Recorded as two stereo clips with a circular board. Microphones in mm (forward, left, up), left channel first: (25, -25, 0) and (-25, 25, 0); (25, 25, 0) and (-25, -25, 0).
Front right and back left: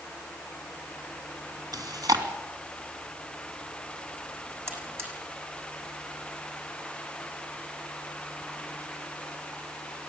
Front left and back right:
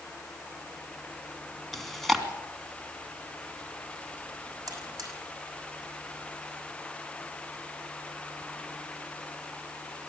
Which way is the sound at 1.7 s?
135° left.